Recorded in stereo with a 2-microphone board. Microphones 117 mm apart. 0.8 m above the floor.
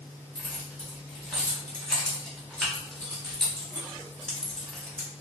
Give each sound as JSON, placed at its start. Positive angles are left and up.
{"t": 0.3, "sound": "keys jangling", "side_deg": 5, "distance_m": 1.1}